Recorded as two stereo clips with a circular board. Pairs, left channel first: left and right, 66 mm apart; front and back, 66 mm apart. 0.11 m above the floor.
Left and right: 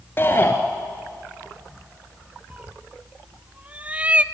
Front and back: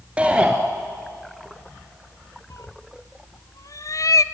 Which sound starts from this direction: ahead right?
A cat meowing, at 2.5 s.